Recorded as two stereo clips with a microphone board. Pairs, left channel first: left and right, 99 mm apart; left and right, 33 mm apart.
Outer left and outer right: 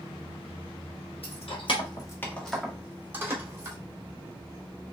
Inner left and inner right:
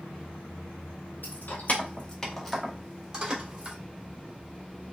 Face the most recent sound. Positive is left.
turn(degrees=-30)  # may be behind; listen again after turning